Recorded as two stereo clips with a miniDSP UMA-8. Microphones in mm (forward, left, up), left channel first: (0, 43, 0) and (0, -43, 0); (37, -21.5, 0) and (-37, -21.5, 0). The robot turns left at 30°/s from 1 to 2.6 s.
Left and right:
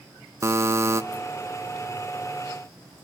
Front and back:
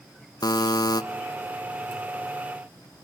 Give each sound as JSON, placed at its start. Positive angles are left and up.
{"t": 0.4, "sound": "a buzzer", "azimuth_deg": -30, "distance_m": 0.6}